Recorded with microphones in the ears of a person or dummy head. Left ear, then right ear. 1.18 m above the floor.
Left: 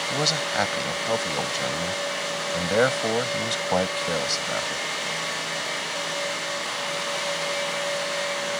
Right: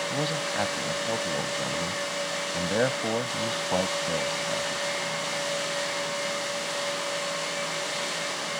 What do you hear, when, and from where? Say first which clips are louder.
0.1 s a man speaking: left 4 dB; 80° left